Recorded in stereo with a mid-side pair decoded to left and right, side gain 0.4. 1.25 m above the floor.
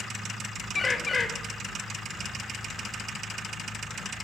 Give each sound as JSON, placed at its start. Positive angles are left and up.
{"t": 0.8, "sound": "a bird", "azimuth_deg": 35, "distance_m": 0.6}